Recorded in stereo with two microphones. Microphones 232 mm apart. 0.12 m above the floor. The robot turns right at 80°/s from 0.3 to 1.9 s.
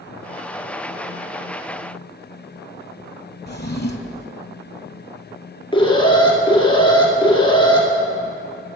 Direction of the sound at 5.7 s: 20° left (ahead or behind).